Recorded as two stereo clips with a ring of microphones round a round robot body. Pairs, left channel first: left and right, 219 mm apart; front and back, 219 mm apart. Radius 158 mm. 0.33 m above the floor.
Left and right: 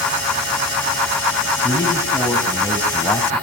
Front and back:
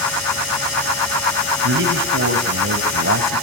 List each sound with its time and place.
1.6 s a man speaking: 170° left, 2 m